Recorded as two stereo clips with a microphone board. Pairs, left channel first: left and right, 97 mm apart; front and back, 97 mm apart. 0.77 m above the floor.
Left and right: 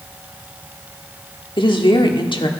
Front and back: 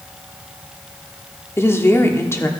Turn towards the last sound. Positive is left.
turn(degrees=60)